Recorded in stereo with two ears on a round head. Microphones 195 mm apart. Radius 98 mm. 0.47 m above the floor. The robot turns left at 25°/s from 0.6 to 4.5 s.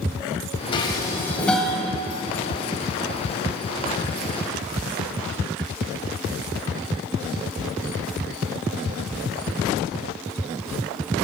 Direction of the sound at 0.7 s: 25° left (ahead or behind).